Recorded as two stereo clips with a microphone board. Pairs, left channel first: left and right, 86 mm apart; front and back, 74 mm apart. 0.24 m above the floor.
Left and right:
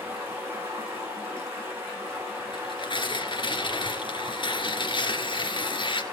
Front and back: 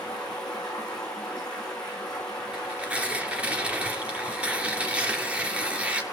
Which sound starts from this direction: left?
Tearing paper, at 2.5 s.